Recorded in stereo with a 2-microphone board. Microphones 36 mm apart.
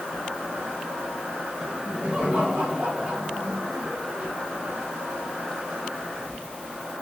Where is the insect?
45° right (ahead or behind), 2 m.